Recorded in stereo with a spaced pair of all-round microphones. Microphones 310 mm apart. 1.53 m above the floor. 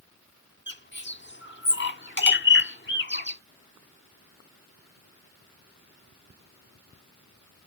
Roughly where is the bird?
Left.